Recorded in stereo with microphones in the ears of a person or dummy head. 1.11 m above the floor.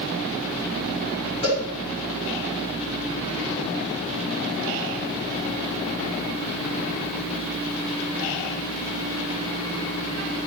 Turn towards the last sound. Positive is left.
turn(degrees=30)  # may be behind; listen again after turning